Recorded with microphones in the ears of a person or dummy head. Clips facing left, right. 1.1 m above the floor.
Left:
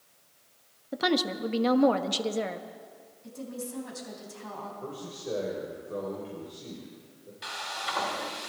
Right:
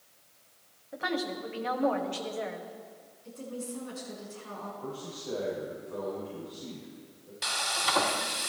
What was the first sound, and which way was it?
A woman speaking, 60° left (ahead or behind).